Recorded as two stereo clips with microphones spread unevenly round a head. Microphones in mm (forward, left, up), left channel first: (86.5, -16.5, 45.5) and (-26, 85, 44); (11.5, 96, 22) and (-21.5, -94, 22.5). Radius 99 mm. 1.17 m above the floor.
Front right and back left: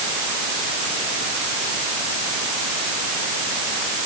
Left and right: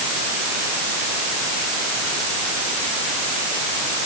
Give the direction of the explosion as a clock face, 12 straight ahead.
No explosion in this recording.